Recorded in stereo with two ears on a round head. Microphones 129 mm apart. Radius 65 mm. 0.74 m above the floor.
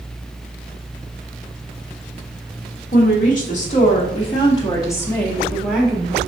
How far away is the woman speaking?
About 2.5 m.